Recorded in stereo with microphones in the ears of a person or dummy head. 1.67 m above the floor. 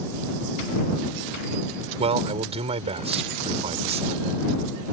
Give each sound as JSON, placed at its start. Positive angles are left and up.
{"t": 2.0, "sound": "a man speaking", "side_deg": -35}